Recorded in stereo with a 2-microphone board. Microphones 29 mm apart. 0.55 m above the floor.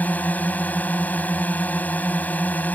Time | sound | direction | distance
0.0 | a drone | 70° left (ahead or behind) | ?